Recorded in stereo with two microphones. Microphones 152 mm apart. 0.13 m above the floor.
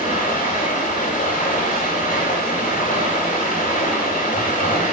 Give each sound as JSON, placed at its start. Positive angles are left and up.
{"t": 0.0, "sound": "running water", "side_deg": 60, "distance_m": 5.0}